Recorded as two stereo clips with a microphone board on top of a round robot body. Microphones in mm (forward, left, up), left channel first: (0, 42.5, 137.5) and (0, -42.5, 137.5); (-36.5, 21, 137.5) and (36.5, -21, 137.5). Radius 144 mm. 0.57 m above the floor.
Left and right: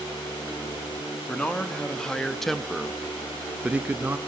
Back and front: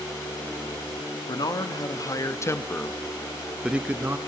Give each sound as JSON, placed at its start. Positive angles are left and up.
{"t": 1.3, "sound": "a man speaking", "azimuth_deg": 165, "distance_m": 1.7}